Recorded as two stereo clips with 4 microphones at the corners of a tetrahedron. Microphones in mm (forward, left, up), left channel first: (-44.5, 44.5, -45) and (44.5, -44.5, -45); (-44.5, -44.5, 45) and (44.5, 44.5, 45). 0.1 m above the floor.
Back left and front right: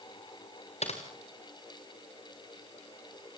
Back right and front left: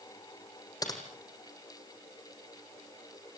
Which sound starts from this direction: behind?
Typing on a keyboard, at 0.8 s.